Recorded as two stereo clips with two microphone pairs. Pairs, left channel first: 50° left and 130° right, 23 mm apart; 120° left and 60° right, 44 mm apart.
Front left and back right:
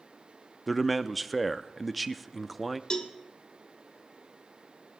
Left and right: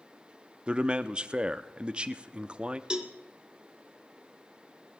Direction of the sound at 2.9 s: 10° left.